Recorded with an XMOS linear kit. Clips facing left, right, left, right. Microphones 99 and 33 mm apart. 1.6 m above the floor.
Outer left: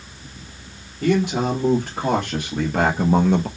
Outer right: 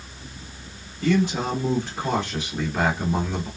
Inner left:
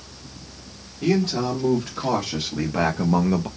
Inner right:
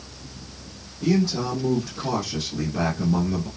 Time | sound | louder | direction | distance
1.0 | a man speaking | outer left 2 dB, inner left 1 dB | 60° left (ahead or behind) | 1.9 m